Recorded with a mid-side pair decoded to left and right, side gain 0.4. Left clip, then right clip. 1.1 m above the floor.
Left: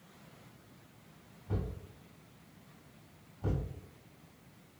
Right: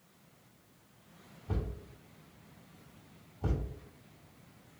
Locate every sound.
1.5 s a thud: 50° right, 1.7 m